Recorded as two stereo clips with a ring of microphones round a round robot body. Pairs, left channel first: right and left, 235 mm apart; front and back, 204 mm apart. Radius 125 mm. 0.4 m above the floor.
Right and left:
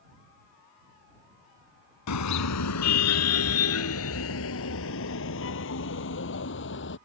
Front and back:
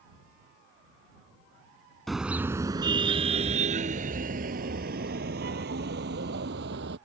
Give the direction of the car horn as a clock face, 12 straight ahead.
3 o'clock.